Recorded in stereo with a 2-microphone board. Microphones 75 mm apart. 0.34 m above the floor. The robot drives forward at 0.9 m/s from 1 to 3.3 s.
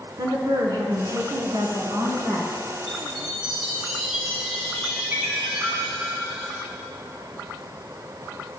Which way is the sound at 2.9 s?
10° right (ahead or behind).